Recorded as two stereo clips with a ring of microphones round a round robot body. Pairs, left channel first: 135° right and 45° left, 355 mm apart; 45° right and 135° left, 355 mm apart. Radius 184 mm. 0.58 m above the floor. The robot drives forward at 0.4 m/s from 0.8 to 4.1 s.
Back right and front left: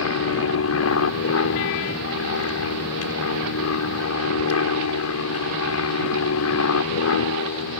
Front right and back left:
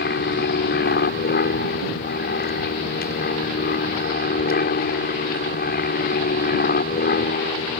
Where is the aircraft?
100° right.